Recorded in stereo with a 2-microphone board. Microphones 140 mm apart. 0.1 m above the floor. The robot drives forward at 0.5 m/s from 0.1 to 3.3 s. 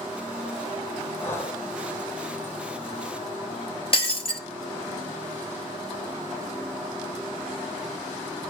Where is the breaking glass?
40° left (ahead or behind), 0.9 m.